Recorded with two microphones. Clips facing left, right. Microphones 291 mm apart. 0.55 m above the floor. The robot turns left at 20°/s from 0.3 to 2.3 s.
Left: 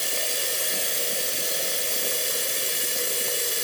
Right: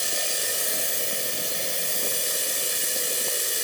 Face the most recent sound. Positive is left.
turn(degrees=75)